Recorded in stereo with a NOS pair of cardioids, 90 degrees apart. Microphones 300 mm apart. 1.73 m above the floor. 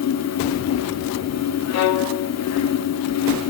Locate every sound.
0.0 s a fan: 60° left, 1.1 m
1.7 s a violin: 65° left, 0.9 m